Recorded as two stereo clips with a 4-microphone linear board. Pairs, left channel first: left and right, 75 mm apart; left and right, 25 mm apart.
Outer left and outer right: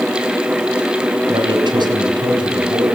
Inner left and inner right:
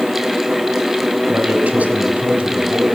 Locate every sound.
1.3 s a man speaking: 85° right, 4.5 m